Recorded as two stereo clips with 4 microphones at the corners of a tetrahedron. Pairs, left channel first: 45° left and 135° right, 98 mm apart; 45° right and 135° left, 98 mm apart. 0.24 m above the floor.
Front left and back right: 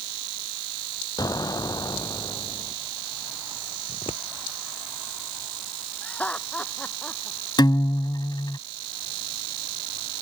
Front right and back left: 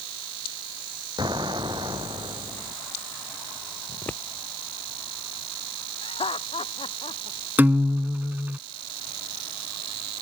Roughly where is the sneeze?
I don't hear a sneeze.